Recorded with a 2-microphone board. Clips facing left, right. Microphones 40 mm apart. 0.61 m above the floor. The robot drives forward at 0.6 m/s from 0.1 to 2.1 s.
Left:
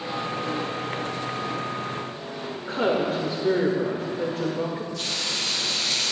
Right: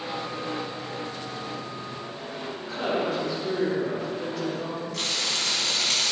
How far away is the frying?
About 4 m.